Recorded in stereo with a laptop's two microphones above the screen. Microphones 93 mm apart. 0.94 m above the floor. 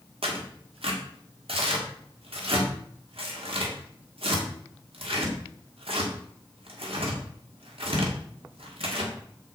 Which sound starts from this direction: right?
Tearing paper, at 0.2 s.